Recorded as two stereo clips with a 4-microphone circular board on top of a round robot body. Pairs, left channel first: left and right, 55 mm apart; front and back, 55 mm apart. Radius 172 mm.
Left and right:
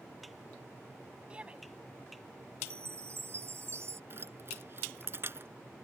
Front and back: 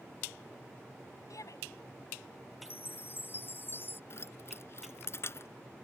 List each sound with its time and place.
1.3 s a shout: 15° right
2.6 s a chime: 50° right
4.1 s keys jangling: 40° right